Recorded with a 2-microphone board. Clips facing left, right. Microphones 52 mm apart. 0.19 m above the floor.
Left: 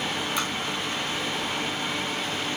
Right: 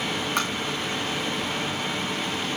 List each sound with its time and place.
0.4 s tapping: 45° right (ahead or behind), 9 m